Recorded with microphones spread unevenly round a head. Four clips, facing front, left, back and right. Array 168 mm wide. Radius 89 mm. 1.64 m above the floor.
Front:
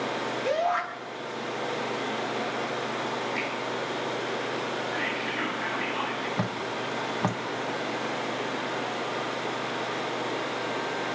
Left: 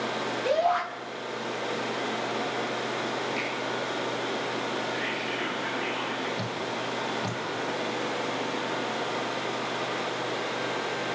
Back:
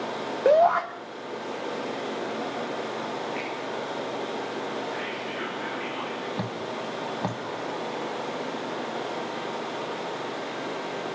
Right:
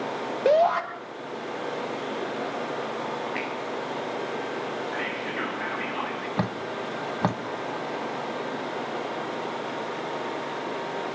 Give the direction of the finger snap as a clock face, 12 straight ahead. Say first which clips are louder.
Right 1 dB, front 1 dB; 2 o'clock.